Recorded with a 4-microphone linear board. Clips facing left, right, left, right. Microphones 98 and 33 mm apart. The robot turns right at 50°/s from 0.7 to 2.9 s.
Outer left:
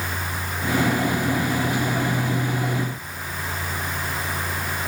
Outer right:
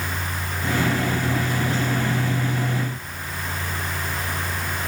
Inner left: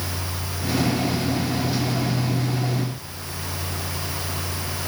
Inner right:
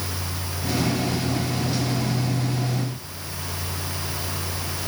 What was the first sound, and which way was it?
Only background noise.